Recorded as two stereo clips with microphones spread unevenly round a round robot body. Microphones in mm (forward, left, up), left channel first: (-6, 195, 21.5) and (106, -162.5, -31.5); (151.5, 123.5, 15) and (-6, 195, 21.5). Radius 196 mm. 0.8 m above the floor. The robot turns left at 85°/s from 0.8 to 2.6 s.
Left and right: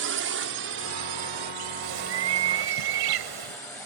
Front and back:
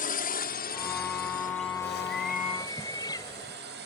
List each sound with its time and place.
0.0 s a drone: 30° right; by 3.9 s 165° right
1.8 s a bird: 35° right; by 3.6 s 105° right